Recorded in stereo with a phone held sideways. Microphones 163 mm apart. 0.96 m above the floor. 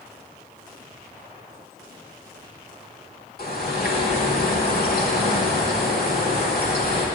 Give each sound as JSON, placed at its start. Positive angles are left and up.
{"t": 3.4, "sound": "a bird", "side_deg": 65, "distance_m": 1.4}